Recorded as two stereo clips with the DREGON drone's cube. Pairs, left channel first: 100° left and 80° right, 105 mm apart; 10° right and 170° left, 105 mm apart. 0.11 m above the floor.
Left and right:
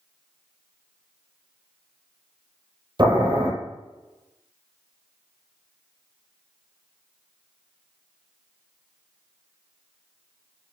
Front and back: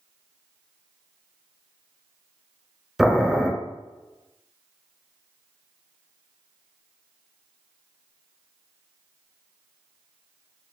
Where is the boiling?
105° right, 0.6 m.